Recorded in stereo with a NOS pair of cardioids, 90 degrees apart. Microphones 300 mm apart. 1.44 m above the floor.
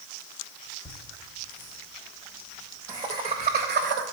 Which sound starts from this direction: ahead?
Laughter, at 0.8 s.